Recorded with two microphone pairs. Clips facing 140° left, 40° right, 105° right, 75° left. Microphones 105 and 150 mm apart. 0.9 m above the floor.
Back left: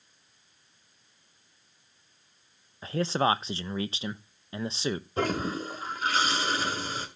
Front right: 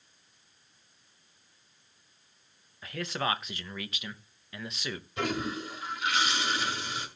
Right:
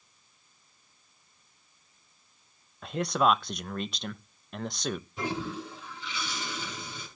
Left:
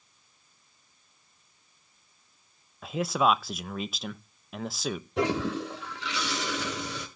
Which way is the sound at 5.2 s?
85° left.